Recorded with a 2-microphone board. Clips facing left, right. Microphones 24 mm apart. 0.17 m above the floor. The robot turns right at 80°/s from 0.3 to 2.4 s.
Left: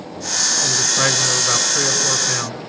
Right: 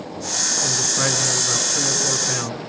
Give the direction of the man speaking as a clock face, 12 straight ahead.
12 o'clock.